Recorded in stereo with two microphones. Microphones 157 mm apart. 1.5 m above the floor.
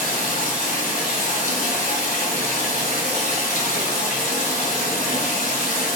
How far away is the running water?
About 1.4 m.